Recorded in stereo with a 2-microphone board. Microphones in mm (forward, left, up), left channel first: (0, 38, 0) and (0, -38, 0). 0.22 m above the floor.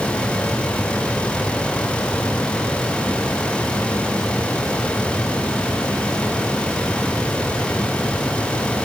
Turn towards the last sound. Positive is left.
No sound to turn to.